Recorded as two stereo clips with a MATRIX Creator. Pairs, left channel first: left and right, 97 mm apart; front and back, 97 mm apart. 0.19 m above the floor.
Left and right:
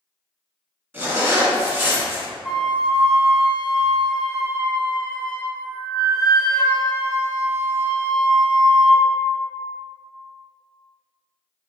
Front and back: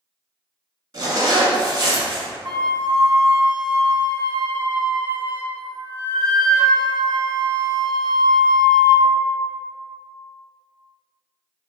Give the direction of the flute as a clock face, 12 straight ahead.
6 o'clock.